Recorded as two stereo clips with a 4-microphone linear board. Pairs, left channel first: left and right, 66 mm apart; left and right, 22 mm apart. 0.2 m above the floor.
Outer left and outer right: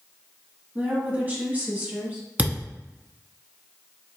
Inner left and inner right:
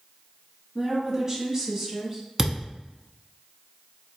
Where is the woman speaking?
30° right (ahead or behind), 1.3 m.